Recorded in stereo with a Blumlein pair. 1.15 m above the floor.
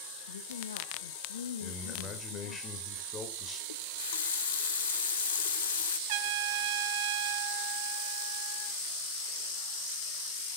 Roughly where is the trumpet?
Ahead right.